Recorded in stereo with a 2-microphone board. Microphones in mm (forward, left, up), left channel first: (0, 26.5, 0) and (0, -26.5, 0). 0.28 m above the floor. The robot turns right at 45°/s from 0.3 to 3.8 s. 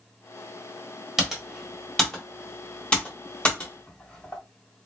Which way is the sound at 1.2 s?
5° right (ahead or behind).